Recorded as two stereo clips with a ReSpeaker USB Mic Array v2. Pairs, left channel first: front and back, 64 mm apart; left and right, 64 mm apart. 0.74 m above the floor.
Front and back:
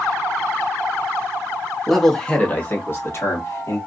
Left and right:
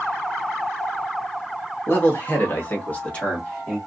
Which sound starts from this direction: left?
A man speaking, at 1.9 s.